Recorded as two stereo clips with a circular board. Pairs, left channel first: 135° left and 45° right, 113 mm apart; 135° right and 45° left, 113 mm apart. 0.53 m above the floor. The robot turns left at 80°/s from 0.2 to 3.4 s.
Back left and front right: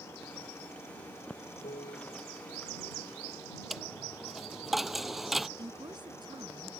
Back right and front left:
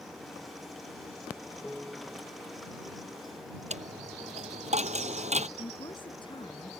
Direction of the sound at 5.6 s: 95° right.